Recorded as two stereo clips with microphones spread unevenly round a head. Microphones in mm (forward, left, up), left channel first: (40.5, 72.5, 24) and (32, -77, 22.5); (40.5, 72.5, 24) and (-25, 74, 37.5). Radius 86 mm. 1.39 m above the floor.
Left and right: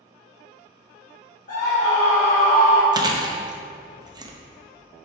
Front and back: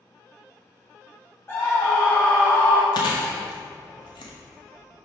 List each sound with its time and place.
1.5 s a scream: 55° left, 1.9 m
2.9 s chewing: 35° right, 0.9 m